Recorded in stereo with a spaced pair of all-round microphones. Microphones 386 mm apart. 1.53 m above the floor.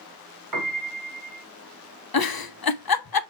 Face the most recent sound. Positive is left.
turn(degrees=65)  # may be behind; listen again after turning